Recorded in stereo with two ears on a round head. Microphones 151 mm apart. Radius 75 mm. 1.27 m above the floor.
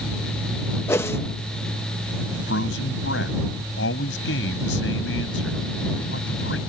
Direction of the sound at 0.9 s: 15° left (ahead or behind).